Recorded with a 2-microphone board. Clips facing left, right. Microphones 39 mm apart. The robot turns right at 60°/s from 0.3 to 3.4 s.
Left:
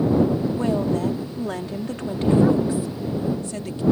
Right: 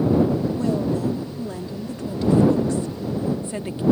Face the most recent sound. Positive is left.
turn(degrees=-155)